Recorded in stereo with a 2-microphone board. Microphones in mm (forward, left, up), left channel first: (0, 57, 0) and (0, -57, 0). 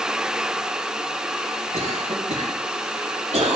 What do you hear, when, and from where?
1.7 s a cough: 80° right, 5.5 m